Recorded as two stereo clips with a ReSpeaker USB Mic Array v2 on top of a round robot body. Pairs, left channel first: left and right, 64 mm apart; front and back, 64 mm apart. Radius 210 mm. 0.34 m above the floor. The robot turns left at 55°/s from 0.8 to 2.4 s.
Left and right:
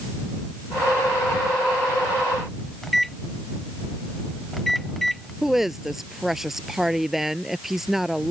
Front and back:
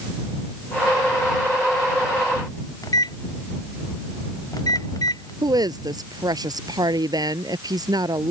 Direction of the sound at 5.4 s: 175° right.